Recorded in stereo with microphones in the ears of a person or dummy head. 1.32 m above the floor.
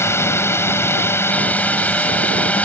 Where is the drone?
15° left (ahead or behind); by 2.7 s 5° left (ahead or behind).